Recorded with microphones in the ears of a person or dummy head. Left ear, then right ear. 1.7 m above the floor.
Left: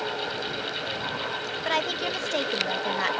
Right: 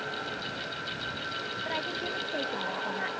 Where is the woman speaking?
40° left (ahead or behind).